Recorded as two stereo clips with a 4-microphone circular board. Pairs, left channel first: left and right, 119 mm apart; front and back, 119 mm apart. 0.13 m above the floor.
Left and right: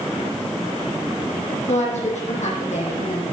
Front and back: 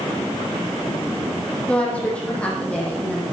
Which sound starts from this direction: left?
A woman speaking, at 1.7 s.